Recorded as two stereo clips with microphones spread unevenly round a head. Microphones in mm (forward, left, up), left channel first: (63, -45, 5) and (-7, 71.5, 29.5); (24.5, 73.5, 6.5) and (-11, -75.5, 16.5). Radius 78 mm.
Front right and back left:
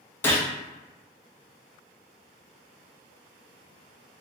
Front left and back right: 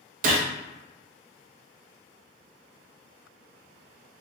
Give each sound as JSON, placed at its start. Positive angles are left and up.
{"t": 0.2, "sound": "a gunshot", "azimuth_deg": -120, "distance_m": 0.5}